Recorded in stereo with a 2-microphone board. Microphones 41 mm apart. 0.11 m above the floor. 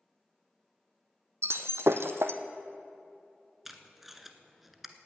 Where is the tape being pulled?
5° right (ahead or behind), 0.9 m.